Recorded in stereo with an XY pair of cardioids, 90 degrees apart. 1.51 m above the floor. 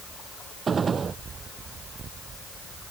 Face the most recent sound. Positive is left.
turn(degrees=-45)